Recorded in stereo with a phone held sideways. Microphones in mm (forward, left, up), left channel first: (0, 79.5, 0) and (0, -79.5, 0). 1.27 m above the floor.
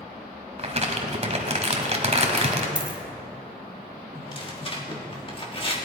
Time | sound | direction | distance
0.6 | crumpling | 40° right (ahead or behind) | 1.5 m
2.8 | a dropped coin | 5° right (ahead or behind) | 1.1 m
4.2 | tearing paper | 35° left (ahead or behind) | 1.6 m